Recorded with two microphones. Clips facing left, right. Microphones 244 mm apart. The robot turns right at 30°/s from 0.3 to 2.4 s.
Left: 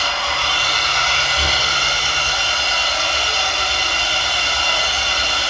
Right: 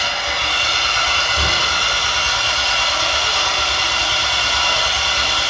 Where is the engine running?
165° right, 5 m; by 5.5 s 100° right, 5 m.